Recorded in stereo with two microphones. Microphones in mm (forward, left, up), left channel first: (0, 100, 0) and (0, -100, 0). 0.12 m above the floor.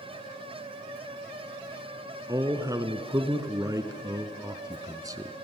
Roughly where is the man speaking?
Centre.